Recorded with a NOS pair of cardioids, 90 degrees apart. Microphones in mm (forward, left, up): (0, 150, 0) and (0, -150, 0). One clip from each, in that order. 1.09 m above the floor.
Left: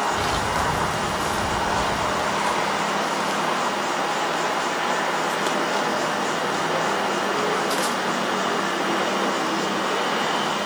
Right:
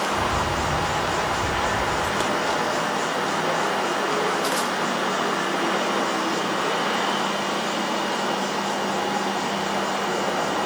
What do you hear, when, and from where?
0.1 s a bird: 5° right, 2.5 m